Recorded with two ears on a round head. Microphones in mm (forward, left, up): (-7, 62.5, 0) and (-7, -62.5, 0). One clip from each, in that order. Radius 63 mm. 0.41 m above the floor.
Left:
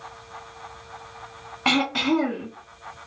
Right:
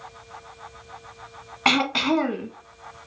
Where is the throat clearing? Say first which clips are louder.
Right 1 dB; 30° right (ahead or behind), 0.6 m.